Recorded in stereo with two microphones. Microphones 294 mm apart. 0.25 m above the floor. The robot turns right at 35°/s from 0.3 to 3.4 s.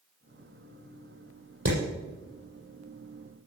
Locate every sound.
1.6 s hammering: 60° right (ahead or behind), 6.5 m; by 1.8 s 55° right (ahead or behind), 6.5 m